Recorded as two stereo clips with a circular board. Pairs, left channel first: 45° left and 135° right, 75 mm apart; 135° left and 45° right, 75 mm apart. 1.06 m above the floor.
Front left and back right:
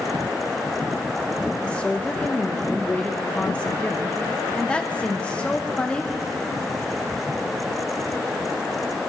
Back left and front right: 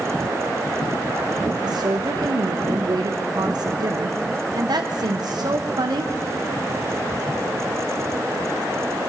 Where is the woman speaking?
30° right, 0.7 m.